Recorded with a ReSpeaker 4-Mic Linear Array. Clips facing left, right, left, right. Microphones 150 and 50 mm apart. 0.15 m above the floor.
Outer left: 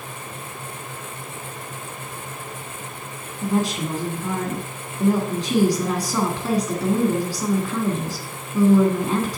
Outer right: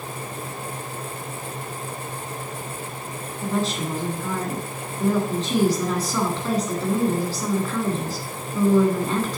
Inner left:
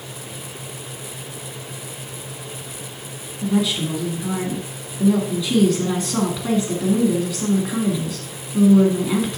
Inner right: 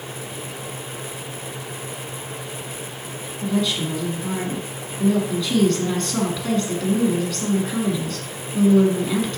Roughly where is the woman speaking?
Centre.